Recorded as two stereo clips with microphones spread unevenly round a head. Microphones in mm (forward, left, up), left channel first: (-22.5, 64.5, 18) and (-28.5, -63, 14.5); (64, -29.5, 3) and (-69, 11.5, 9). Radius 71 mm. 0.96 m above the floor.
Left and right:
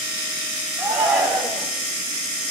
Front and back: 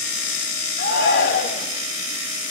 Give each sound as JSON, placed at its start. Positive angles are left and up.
{"t": 0.8, "sound": "a shout", "azimuth_deg": -5, "distance_m": 5.5}